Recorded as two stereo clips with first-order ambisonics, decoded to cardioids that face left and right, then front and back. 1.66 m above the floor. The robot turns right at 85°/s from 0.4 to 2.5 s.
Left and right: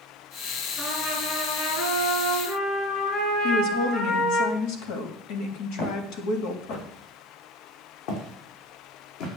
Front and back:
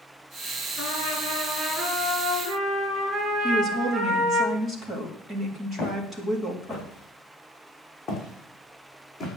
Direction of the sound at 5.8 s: 65° left.